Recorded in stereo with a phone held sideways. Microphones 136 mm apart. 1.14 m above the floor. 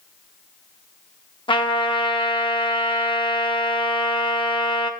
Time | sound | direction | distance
1.5 | a trumpet | 35° left (ahead or behind) | 0.8 m